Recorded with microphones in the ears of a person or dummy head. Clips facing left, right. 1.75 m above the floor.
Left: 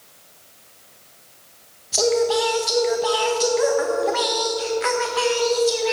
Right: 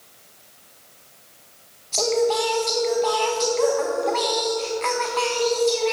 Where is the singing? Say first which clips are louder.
Left 2 dB; 10° left (ahead or behind), 1.4 m.